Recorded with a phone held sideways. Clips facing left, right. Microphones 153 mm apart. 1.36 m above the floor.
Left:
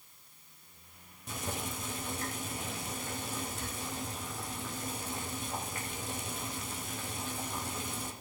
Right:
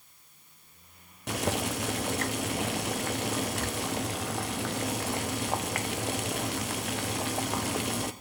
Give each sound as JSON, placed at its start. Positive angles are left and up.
{"t": 1.3, "sound": "boiling", "side_deg": -75, "distance_m": 0.6}